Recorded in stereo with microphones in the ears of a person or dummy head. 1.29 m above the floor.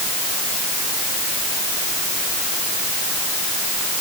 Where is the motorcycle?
No motorcycle in this recording.